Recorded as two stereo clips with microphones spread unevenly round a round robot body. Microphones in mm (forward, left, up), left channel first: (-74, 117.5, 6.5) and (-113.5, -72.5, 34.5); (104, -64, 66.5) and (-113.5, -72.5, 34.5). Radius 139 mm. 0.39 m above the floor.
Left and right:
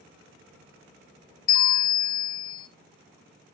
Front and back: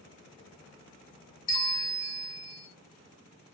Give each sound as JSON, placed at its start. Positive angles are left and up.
{"t": 1.5, "sound": "a bell", "azimuth_deg": 75, "distance_m": 1.3}